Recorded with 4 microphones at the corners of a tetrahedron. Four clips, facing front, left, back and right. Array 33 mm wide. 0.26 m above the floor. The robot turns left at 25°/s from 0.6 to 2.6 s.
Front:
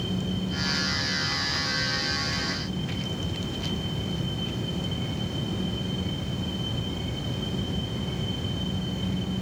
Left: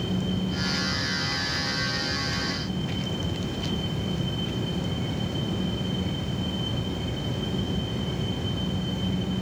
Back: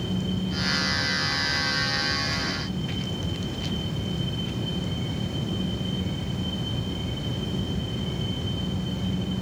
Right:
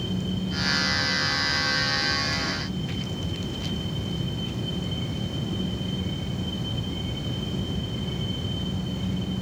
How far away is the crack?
No crack in this recording.